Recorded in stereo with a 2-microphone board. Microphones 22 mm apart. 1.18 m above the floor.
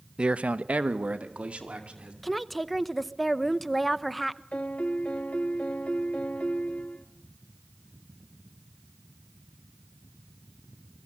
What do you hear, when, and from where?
0.2 s a man speaking: 40° right (ahead or behind), 0.7 m; by 2.1 s 60° right (ahead or behind), 3 m
2.2 s a woman speaking: 5° left (ahead or behind), 0.8 m
4.5 s a piano: 70° left (ahead or behind), 1.5 m